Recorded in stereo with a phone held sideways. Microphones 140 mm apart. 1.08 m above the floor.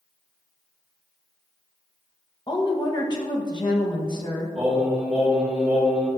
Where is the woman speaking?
30° left (ahead or behind), 1.1 m.